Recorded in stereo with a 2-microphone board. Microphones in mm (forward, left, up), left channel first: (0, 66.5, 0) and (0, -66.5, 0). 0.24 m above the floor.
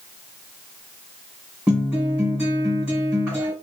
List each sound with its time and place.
1.7 s a guitar: 10° right (ahead or behind), 2.0 m